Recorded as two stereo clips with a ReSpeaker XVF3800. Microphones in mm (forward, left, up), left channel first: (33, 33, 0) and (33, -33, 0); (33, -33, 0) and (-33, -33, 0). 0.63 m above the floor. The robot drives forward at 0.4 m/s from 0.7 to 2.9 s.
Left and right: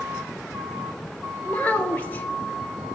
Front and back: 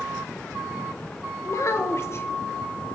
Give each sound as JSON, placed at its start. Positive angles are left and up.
{"t": 1.4, "sound": "a child speaking", "azimuth_deg": 25, "distance_m": 1.2}